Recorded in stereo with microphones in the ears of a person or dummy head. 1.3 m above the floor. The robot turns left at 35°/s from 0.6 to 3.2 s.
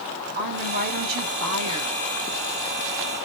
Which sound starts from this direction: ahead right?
A woman speaking, at 0.3 s.